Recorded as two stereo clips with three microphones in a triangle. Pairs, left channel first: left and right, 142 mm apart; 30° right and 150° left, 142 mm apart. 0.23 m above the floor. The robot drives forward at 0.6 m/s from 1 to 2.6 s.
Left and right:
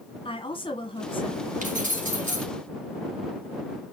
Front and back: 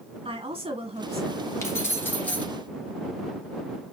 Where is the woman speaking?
125° left, 1.7 m; by 2.5 s 145° left, 2.5 m.